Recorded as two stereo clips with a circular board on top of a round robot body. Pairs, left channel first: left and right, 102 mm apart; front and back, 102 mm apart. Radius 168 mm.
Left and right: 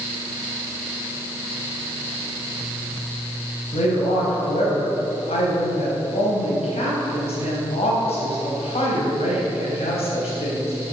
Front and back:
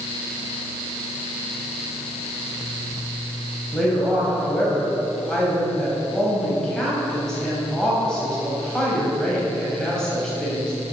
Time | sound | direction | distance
3.7 | a woman speaking | 80° left | 3.5 m